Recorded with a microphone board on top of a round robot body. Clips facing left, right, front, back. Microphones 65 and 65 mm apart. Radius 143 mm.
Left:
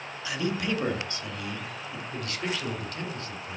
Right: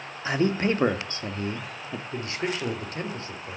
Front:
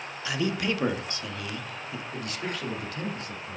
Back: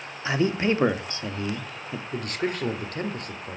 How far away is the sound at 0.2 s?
About 1.3 m.